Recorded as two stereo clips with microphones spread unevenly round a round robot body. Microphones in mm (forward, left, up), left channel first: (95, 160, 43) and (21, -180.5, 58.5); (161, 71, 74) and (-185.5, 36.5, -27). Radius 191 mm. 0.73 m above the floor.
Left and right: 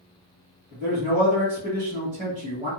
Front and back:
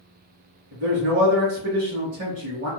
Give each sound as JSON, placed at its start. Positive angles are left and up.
{"t": 0.7, "sound": "a man speaking", "azimuth_deg": -170, "distance_m": 1.3}